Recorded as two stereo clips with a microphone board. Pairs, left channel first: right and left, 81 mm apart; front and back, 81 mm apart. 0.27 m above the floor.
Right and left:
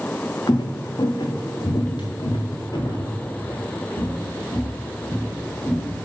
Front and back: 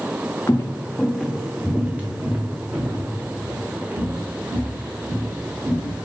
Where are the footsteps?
55° right, 0.7 m; by 6.0 s 130° right, 3 m.